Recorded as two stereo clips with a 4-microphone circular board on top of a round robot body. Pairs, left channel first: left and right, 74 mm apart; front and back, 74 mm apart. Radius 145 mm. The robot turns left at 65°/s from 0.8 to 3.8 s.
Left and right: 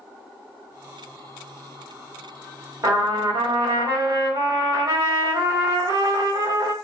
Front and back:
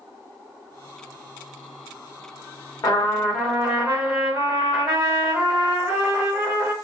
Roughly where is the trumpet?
Ahead right.